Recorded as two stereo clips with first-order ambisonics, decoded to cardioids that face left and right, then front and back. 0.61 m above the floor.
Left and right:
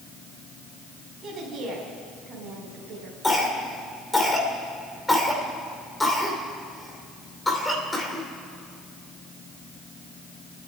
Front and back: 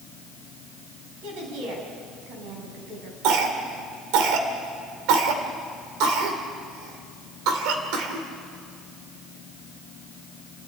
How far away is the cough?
About 2.5 m.